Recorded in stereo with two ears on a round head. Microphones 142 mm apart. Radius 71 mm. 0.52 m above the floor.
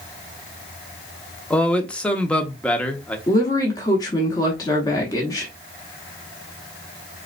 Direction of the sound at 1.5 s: 5° left (ahead or behind).